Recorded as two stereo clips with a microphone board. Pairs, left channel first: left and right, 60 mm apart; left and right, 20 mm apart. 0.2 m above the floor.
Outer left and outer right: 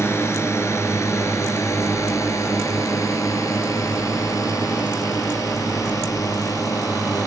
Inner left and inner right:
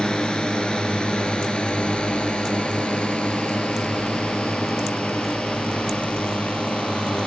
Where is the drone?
45° left (ahead or behind); by 7.3 s 75° left (ahead or behind).